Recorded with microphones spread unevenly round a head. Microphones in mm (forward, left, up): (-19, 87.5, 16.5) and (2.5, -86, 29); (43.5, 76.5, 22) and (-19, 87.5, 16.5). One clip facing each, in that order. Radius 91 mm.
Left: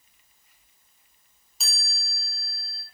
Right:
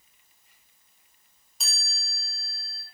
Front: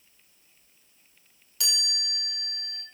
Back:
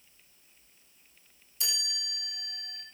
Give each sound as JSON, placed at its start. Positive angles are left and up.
{"t": 1.6, "sound": "a chime", "azimuth_deg": 10, "distance_m": 6.5}